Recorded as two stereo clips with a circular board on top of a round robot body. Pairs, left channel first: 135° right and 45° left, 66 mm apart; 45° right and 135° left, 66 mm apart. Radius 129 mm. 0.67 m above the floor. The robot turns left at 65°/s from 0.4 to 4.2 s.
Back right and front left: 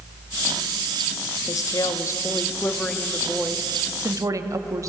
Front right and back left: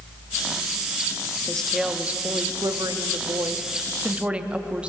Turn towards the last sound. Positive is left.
turn(degrees=65)